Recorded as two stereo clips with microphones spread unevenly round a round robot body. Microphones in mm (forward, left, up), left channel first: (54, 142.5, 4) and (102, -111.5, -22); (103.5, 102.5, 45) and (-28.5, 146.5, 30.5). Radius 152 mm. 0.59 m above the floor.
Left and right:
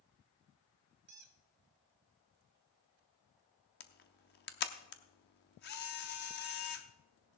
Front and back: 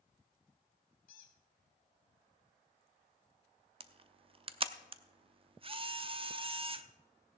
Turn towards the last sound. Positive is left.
turn(degrees=150)